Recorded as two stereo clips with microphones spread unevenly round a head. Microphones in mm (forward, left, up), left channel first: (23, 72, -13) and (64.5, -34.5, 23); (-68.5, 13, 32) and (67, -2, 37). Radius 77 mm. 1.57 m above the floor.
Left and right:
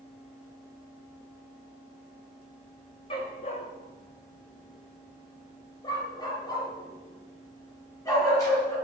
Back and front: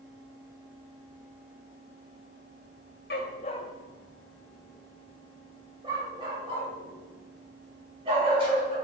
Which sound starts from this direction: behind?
A dog barking, at 3.1 s.